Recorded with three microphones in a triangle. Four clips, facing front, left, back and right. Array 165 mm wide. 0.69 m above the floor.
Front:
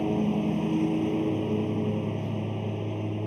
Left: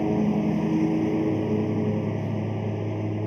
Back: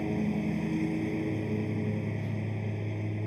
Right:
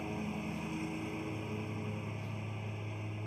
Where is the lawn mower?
70° left.